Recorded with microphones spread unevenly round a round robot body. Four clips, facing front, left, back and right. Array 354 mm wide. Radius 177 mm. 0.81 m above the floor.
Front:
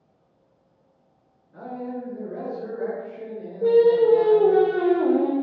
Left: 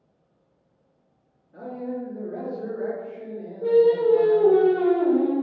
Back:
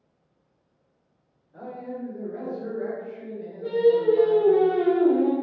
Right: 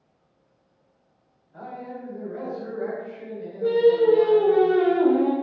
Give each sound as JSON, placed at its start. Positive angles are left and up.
{"t": 1.5, "sound": "a man speaking", "azimuth_deg": 50, "distance_m": 1.3}
{"t": 3.6, "sound": "singing", "azimuth_deg": -15, "distance_m": 1.1}